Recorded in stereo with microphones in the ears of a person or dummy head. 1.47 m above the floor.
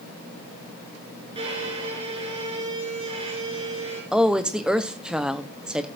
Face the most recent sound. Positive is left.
turn(degrees=-5)  # may be behind; listen again after turning